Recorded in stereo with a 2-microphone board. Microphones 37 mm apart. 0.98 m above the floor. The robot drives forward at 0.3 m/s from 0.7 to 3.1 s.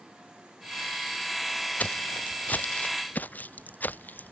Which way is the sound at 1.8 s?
35° left (ahead or behind).